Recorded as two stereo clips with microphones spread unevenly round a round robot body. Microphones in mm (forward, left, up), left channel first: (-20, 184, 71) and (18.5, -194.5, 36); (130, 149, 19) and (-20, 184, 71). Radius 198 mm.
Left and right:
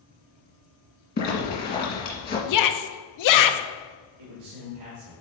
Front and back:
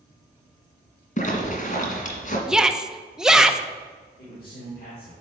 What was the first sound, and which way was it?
A zipper, 35° left.